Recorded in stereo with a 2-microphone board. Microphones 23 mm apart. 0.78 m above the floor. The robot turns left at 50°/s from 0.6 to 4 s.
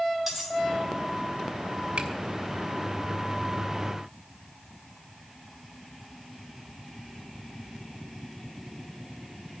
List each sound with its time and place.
0.3 s cutlery clinking: 5° right (ahead or behind), 3.5 m
2.0 s a finger snap: 60° right (ahead or behind), 1.3 m; by 2.1 s 55° right (ahead or behind), 1.3 m